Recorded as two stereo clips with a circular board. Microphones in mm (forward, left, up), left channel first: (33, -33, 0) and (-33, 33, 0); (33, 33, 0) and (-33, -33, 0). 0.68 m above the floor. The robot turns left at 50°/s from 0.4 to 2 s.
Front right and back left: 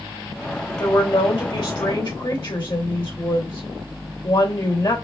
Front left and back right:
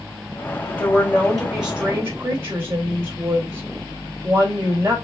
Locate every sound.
0.8 s a woman speaking: 15° right, 2 m; by 5.0 s 75° right, 2 m